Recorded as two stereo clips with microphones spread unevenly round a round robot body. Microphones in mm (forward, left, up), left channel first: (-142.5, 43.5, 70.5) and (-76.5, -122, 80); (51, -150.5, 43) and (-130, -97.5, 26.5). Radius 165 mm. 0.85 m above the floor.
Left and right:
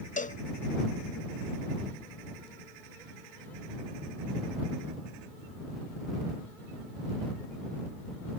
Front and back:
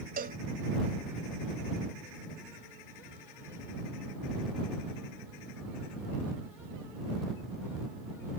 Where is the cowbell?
140° left.